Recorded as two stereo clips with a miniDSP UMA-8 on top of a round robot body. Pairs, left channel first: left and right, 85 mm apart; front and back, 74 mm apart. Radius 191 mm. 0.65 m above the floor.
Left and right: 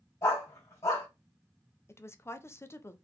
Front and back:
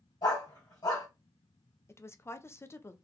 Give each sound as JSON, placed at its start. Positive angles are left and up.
{"t": 0.2, "sound": "a dog barking", "azimuth_deg": 35, "distance_m": 2.5}
{"t": 1.9, "sound": "a woman speaking", "azimuth_deg": 40, "distance_m": 0.8}